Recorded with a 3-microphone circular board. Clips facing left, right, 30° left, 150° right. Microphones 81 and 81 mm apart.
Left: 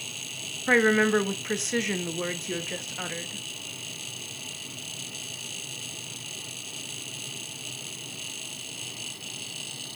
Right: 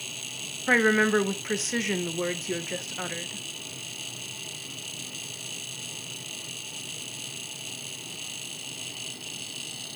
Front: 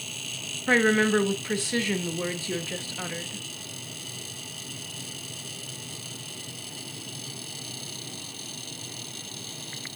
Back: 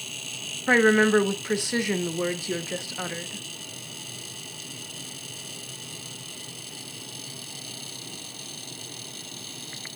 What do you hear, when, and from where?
0.7 s a woman speaking: 175° right, 0.8 m